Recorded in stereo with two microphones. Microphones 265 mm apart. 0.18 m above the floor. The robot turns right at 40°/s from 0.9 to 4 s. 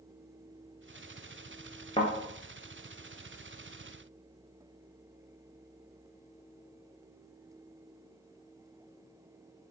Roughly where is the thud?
Centre.